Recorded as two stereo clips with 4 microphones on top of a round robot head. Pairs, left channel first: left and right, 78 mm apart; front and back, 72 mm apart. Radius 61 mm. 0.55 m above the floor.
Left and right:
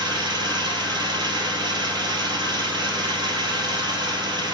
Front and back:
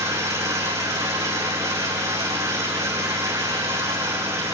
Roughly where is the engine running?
Behind right.